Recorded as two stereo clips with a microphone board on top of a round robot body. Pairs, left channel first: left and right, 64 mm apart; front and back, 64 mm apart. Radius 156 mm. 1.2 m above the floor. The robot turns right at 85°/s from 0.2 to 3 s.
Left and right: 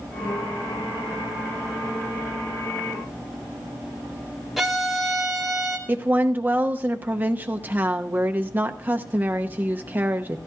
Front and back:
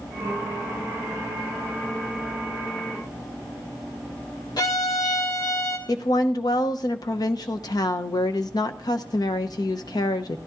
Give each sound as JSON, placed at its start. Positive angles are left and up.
{"t": 4.6, "sound": "a violin", "azimuth_deg": -5, "distance_m": 2.0}
{"t": 5.9, "sound": "a woman speaking", "azimuth_deg": -25, "distance_m": 0.8}